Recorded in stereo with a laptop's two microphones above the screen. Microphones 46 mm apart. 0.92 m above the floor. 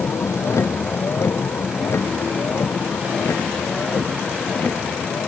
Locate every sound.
0.0 s a vehicle: 80° left; by 5.3 s 50° left (ahead or behind)